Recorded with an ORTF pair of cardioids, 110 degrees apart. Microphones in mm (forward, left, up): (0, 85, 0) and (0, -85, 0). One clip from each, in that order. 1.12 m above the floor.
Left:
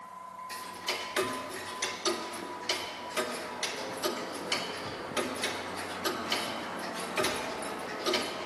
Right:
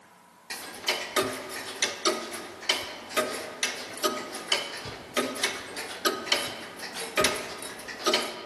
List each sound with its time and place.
0.5 s ticking: 30° right, 0.7 m